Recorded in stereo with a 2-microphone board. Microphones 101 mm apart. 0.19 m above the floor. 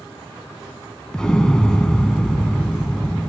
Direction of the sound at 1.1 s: 10° left (ahead or behind).